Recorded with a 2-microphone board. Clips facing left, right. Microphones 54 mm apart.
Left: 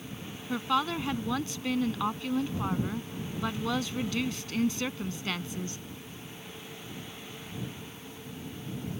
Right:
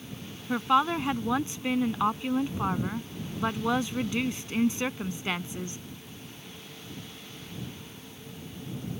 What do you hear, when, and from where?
0.5 s a woman speaking: 25° right (ahead or behind)